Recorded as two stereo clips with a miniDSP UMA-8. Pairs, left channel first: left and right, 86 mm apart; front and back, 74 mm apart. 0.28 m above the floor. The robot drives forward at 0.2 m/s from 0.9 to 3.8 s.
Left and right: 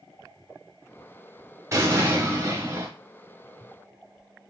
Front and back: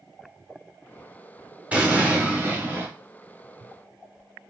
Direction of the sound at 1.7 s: 115° right.